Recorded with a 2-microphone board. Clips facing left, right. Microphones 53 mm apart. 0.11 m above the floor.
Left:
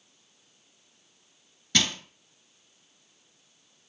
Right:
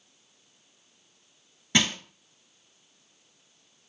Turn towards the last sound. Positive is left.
turn(degrees=-20)  # may be behind; listen again after turning